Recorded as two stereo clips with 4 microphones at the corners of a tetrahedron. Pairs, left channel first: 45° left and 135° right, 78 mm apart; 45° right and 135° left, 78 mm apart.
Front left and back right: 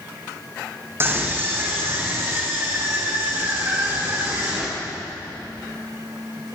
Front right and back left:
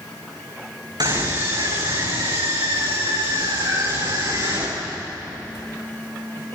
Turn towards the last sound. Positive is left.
turn(degrees=170)